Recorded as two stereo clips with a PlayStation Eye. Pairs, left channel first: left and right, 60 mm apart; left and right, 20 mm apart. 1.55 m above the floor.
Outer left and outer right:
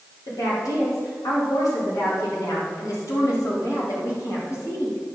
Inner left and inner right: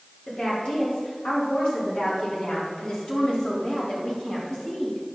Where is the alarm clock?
I don't hear an alarm clock.